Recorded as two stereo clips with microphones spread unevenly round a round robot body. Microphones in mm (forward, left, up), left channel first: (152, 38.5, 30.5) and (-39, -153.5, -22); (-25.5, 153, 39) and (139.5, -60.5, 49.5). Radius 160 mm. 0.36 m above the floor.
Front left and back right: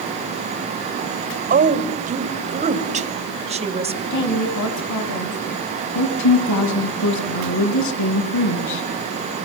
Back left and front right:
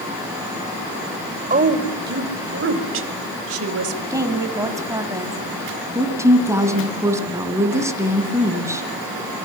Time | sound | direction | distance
1.5 | a woman speaking | 105° right | 1.9 m
4.1 | a woman speaking | 25° left | 4 m
6.0 | a woman speaking | 25° left | 3.5 m